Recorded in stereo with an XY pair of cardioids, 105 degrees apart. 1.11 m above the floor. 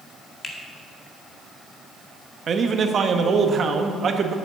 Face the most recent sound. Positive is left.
turn(degrees=-45)